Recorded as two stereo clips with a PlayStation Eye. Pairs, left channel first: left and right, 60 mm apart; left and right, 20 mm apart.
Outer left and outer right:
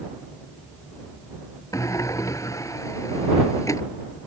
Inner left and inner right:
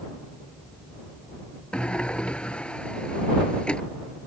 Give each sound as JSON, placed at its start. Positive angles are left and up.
{"t": 1.7, "sound": "a sliding door", "side_deg": 65}